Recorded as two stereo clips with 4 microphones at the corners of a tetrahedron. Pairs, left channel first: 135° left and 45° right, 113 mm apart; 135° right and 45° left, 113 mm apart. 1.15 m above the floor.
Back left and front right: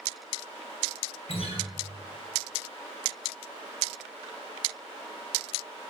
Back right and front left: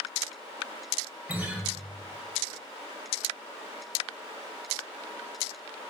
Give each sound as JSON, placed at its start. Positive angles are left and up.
{"t": 1.3, "sound": "a guitar", "azimuth_deg": 120, "distance_m": 1.9}